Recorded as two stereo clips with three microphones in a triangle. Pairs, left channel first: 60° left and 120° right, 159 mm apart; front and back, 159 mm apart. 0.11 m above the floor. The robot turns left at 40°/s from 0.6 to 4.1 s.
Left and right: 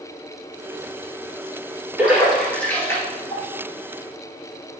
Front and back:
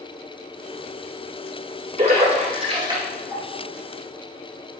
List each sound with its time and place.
2.0 s a splash: 165° left, 2.5 m; by 3.4 s 105° left, 2.5 m